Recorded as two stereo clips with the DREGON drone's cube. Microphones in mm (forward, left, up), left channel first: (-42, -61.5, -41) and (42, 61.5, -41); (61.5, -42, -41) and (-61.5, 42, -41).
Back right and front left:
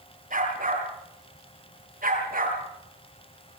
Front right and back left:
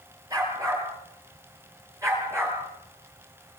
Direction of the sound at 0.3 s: 80° left.